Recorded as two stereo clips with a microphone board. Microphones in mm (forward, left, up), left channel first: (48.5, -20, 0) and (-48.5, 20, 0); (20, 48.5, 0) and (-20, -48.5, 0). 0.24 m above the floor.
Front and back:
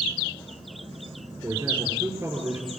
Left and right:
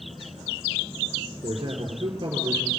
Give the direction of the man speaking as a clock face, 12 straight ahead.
5 o'clock.